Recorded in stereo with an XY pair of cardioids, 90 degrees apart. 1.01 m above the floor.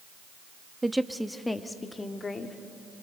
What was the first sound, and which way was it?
A woman speaking, 15° right.